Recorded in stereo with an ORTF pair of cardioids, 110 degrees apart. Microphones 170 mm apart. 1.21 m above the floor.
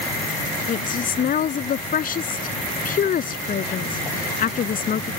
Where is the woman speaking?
50° left.